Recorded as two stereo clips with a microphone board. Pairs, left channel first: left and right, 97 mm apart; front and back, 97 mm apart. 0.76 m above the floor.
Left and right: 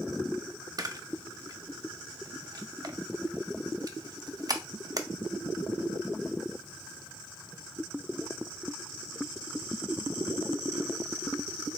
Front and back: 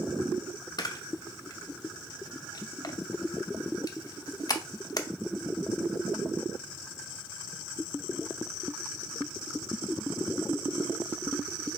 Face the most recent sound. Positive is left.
turn(degrees=-45)